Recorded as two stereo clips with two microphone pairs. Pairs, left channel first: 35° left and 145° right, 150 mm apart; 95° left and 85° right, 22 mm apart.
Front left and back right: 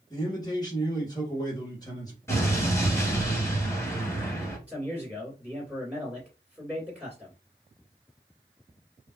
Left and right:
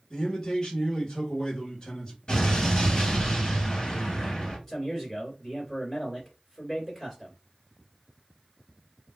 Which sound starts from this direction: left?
An explosion, at 2.3 s.